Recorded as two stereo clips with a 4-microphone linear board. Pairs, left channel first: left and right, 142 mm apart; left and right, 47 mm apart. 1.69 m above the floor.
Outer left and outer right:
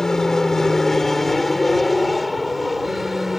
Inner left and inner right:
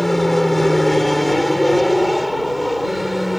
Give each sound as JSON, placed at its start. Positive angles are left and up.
{"t": 0.0, "sound": "an aircraft", "side_deg": 5}